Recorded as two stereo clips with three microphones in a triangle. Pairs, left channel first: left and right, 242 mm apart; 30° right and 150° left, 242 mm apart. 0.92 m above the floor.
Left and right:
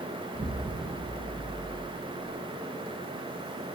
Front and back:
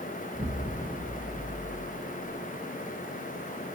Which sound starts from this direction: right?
An explosion, at 0.3 s.